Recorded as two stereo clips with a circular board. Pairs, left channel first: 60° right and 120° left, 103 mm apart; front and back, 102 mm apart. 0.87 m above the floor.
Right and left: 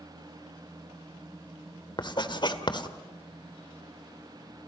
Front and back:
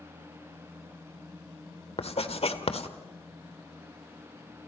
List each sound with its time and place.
2.0 s writing: 20° right, 1.5 m